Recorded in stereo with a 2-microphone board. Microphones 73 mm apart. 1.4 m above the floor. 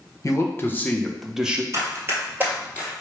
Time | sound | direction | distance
0.2 | a man speaking | 40° left (ahead or behind) | 1.0 m
1.7 | running footsteps | 40° right (ahead or behind) | 2.0 m